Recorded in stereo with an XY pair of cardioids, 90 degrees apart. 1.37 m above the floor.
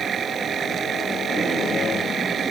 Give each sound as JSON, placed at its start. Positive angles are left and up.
{"t": 0.0, "sound": "a machine running", "azimuth_deg": -55}